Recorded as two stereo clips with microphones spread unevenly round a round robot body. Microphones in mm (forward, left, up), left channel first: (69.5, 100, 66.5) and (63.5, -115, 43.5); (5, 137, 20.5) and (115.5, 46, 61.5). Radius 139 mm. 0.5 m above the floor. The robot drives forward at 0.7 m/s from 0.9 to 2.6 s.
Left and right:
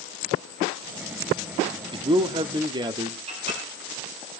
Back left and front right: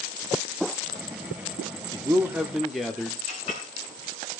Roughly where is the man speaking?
Right.